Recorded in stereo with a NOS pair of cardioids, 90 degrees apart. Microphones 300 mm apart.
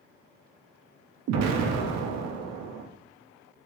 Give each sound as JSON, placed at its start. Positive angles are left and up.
{"t": 1.3, "sound": "an explosion", "azimuth_deg": -60, "distance_m": 0.6}